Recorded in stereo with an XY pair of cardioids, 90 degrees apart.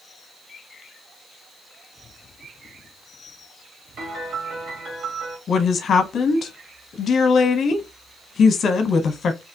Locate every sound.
4.0 s a piano: 65° right, 1.5 m
5.5 s a woman speaking: 60° left, 0.7 m